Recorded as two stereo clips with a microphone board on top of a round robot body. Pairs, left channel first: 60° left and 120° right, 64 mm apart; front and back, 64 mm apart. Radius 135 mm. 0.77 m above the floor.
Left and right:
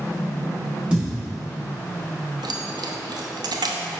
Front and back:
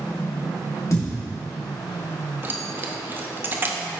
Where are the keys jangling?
120° right, 0.6 m.